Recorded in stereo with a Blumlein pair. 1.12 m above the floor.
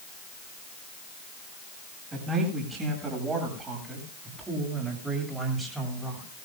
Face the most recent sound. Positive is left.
turn(degrees=-5)